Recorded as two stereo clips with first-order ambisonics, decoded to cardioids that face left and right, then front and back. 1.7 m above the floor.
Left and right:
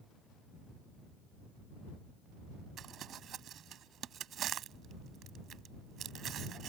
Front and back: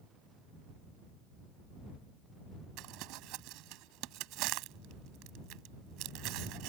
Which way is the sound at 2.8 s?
145° right.